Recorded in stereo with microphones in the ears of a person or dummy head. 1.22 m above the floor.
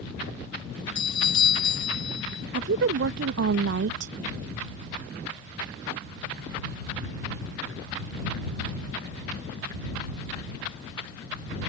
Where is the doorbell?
25° left (ahead or behind).